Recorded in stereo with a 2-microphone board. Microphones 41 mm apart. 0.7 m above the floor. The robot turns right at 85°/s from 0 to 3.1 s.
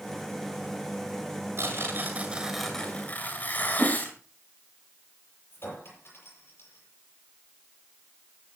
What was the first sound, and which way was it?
Tearing paper, 90° right.